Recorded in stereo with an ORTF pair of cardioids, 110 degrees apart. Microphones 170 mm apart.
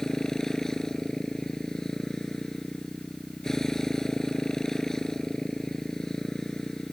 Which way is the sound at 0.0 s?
5° left.